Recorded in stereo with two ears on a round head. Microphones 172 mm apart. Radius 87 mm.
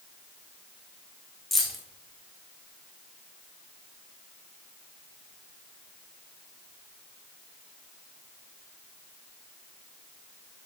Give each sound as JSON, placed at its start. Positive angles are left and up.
{"t": 1.5, "sound": "keys jangling", "side_deg": 0, "distance_m": 1.3}